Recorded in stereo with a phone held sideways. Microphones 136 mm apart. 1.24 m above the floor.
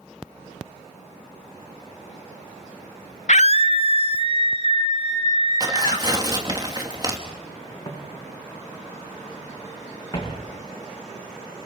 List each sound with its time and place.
3.3 s a scream: 60° left (ahead or behind), 0.6 m; by 6.1 s 40° left (ahead or behind), 3.5 m
5.6 s tearing paper: 30° right (ahead or behind), 2.5 m
7.8 s footsteps: 30° left (ahead or behind), 8.5 m; by 10.4 s 35° left (ahead or behind), 6.5 m